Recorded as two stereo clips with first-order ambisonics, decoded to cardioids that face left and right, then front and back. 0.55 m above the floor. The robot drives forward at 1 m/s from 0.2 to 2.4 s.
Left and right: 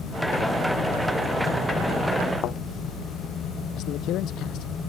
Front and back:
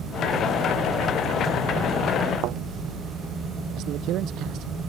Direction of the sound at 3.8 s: 135° left.